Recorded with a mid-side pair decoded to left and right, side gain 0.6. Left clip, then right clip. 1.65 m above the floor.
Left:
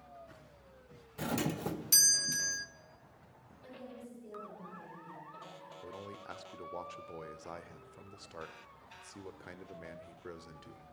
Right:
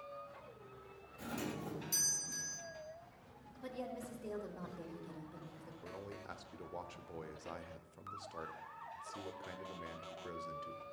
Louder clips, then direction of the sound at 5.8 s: Left 1 dB; 15° left.